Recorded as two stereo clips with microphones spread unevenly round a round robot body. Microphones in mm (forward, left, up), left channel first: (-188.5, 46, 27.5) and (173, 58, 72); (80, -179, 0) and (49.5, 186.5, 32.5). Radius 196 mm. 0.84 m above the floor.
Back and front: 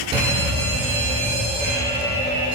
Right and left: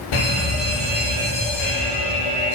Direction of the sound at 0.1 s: 80° right.